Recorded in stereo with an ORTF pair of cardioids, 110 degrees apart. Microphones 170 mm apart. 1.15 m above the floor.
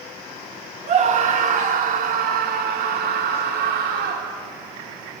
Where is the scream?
45° right, 3 m; by 4.3 s 80° right, 3 m.